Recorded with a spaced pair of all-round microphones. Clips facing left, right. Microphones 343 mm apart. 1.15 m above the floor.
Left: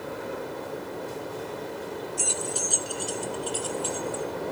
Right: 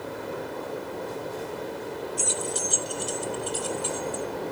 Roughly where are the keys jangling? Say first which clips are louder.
Right 1 dB; right.